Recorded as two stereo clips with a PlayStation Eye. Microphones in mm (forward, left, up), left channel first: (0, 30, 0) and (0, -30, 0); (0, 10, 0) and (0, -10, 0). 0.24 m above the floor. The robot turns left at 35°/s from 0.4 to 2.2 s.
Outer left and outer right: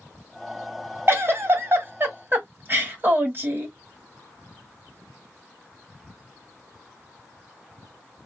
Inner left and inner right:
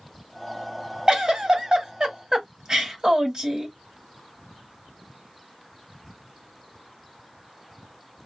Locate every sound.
1.1 s a giggle: 80° right, 1.4 m; by 3.8 s 120° right, 1.4 m